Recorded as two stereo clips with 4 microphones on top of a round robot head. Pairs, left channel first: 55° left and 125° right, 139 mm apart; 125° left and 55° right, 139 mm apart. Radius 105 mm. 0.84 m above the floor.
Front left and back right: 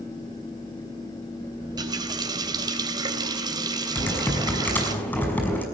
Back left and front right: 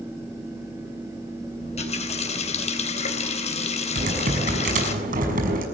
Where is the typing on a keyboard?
25° right, 6 m.